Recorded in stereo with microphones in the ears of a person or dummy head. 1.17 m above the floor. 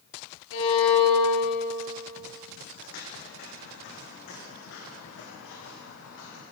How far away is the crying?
No crying in this recording.